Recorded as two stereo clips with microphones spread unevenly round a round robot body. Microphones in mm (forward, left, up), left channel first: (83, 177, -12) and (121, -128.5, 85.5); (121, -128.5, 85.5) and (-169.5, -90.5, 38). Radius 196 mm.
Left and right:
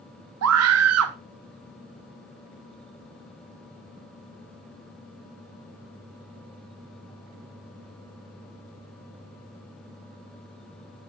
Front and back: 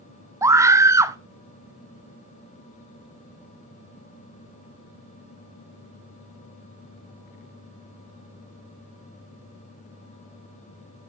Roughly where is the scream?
Behind right.